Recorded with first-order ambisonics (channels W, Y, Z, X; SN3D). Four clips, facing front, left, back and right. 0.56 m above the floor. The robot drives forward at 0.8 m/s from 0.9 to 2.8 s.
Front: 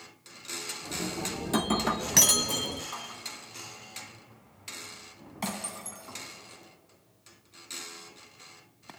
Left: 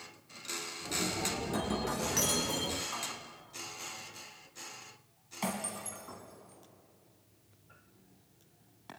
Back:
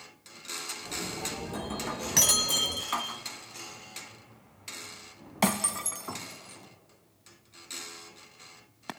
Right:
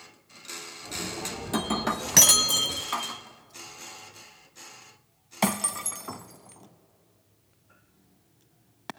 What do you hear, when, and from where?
1.4 s breaking glass: 35° right, 0.9 m; by 8.9 s 130° right, 0.7 m